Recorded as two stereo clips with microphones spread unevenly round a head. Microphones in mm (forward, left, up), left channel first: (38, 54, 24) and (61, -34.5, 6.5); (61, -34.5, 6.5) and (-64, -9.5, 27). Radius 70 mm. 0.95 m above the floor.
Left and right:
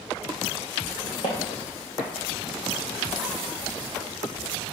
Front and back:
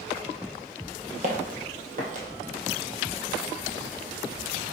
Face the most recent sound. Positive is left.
turn(degrees=-175)